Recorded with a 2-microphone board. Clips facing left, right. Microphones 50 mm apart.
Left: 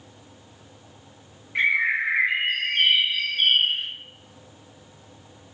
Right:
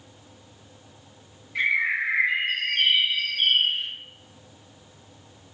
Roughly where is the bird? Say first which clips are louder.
Left 2 dB; left.